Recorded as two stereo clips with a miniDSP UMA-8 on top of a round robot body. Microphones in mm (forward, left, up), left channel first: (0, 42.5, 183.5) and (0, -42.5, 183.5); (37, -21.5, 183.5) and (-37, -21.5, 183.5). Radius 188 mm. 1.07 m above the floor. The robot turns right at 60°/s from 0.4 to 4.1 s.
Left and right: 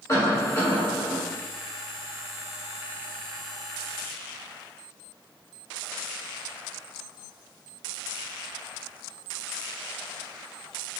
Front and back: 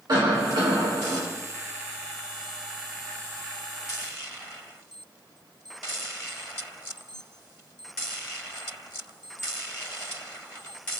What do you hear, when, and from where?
0.1 s a cough: 150° left, 1.7 m; by 1.2 s 165° right, 1.7 m